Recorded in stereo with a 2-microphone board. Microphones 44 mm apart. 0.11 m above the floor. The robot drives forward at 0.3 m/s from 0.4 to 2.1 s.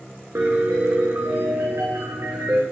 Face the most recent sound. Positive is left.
turn(degrees=-85)